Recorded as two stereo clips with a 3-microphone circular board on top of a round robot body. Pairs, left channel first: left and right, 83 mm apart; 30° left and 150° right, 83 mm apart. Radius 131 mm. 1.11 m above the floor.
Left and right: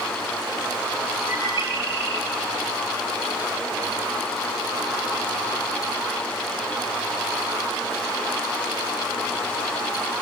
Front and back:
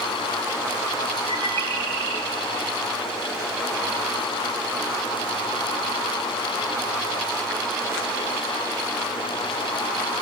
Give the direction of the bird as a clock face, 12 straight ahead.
5 o'clock.